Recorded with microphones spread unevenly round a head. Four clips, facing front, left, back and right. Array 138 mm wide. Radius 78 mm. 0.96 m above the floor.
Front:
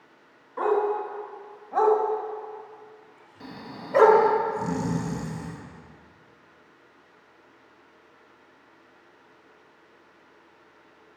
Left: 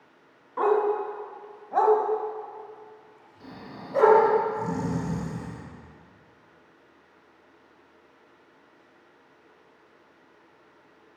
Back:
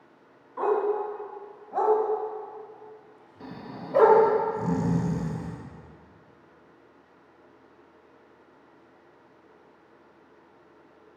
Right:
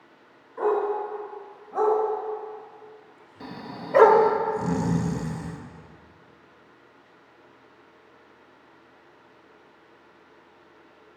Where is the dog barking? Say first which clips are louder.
Left 1 dB, front 1 dB; 55° left, 2 m; by 4.2 s 55° right, 1.1 m.